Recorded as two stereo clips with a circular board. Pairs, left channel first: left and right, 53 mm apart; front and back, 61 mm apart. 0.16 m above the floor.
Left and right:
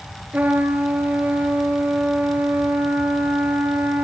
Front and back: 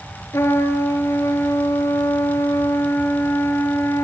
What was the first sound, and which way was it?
A trumpet, 35° right.